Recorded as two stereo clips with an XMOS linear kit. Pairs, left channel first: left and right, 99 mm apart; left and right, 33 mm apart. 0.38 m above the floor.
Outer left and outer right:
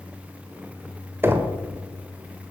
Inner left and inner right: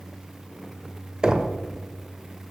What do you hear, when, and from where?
1.2 s knocking: 20° right (ahead or behind), 1.0 m